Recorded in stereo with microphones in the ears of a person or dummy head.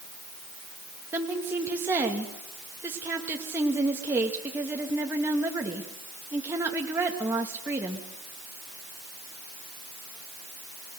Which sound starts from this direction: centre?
A woman speaking, at 1.1 s.